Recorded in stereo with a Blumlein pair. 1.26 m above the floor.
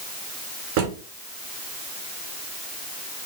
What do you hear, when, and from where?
0.8 s a drawer: 50° right, 2.5 m